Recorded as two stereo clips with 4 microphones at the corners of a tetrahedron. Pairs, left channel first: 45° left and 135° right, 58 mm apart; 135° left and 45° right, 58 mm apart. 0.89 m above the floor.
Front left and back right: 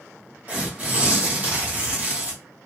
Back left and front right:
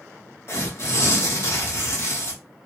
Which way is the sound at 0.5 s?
170° left.